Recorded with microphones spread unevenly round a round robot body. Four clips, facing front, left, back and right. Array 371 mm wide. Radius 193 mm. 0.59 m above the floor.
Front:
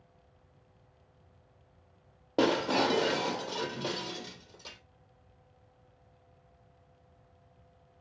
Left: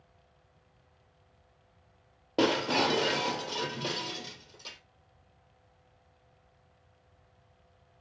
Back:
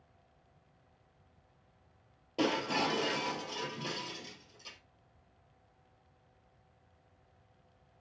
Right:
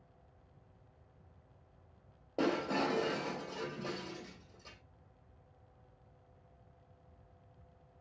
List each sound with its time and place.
2.4 s breaking glass: 55° left, 2.5 m